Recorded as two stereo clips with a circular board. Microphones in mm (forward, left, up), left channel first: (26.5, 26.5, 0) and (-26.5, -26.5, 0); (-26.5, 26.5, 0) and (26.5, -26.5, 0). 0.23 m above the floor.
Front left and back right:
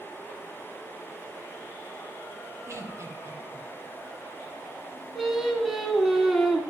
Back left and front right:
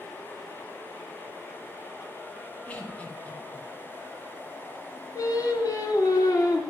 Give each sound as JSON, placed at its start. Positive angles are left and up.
{"t": 2.7, "sound": "laughter", "azimuth_deg": -160, "distance_m": 2.0}
{"t": 5.2, "sound": "singing", "azimuth_deg": 135, "distance_m": 2.5}